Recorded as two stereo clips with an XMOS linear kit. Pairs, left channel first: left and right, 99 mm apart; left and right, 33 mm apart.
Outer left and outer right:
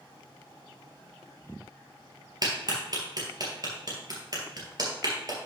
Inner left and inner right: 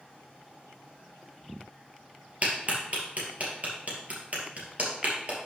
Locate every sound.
2.4 s a clap: 45° right (ahead or behind), 2.5 m